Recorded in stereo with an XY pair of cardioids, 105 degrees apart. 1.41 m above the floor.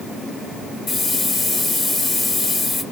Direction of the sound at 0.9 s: 50° left.